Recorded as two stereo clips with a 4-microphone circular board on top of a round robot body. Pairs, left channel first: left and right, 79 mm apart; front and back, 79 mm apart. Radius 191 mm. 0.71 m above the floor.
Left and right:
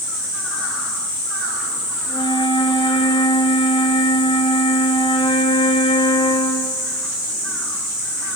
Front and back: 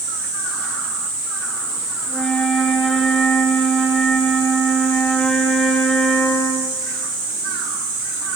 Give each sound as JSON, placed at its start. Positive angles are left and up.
{"t": 2.1, "sound": "a flute", "azimuth_deg": 85, "distance_m": 7.0}